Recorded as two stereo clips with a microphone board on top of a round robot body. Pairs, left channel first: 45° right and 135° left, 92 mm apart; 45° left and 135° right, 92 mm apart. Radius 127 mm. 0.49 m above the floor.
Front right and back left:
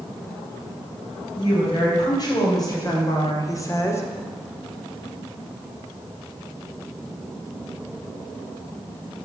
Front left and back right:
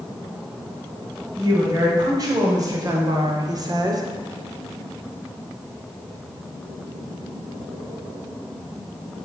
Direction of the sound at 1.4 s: 85° right.